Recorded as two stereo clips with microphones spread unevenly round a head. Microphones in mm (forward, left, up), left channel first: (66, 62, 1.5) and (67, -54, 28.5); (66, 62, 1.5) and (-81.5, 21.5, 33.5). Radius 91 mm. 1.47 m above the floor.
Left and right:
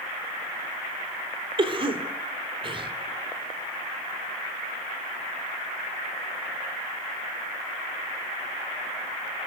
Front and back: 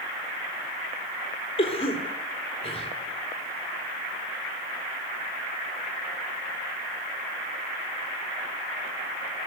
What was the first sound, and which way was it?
A cough, 50° right.